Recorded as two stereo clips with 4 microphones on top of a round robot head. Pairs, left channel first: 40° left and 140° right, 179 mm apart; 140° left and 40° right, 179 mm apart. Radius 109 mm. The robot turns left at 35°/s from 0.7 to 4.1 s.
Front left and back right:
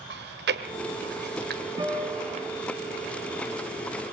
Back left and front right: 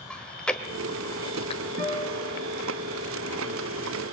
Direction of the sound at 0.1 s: 135° right.